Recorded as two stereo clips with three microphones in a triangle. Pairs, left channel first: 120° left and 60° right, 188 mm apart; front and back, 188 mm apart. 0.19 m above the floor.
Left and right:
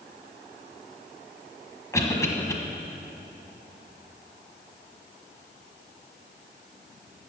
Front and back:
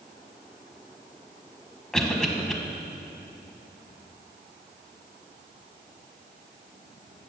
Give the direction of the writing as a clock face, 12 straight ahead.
I don't hear writing.